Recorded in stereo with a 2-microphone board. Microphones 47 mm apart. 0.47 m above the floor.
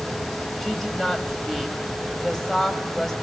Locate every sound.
0.6 s a woman speaking: 10° left (ahead or behind), 2.5 m